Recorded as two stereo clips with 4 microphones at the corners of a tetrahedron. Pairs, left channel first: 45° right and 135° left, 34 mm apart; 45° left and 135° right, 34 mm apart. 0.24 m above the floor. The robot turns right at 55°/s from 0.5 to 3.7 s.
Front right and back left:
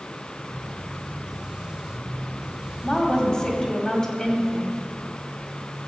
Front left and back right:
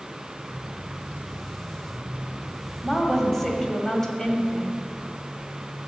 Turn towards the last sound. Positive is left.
turn(degrees=-10)